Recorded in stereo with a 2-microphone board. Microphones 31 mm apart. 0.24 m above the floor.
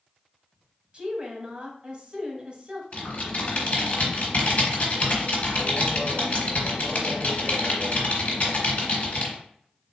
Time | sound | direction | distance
0.9 | a woman speaking | 35° right (ahead or behind) | 1.1 m
2.9 | typing on a keyboard | 50° left (ahead or behind) | 1.5 m